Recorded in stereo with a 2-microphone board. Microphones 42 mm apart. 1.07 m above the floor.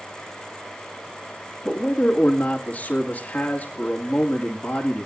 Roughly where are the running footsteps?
No running footsteps in this recording.